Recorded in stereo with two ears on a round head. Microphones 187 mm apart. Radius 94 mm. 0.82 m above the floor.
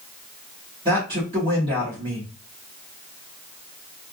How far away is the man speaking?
About 1.4 m.